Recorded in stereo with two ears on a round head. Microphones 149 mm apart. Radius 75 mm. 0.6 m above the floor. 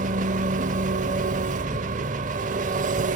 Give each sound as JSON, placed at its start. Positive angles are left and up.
{"t": 0.0, "sound": "an engine running", "side_deg": -45, "distance_m": 0.8}